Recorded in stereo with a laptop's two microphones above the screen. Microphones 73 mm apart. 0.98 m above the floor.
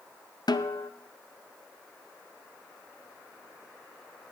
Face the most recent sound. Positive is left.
turn(degrees=70)  # may be behind; listen again after turning